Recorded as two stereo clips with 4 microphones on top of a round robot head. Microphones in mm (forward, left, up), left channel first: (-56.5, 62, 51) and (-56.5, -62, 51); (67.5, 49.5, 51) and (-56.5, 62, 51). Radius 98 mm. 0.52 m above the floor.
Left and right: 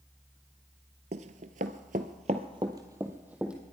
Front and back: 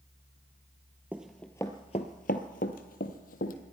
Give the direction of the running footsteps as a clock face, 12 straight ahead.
3 o'clock.